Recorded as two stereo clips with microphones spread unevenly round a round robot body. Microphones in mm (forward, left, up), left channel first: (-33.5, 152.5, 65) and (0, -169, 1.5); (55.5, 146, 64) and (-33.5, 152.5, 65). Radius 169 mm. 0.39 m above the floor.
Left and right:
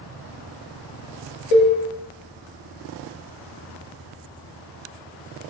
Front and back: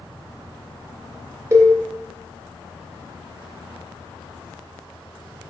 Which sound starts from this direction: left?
A cowbell, at 1.5 s.